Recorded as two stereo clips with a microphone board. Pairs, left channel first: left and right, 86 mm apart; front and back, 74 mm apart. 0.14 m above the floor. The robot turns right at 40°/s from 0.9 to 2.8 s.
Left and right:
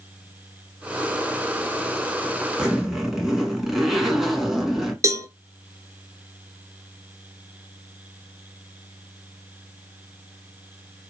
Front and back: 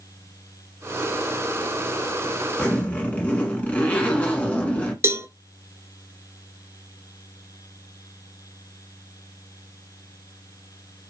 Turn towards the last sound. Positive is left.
turn(degrees=-135)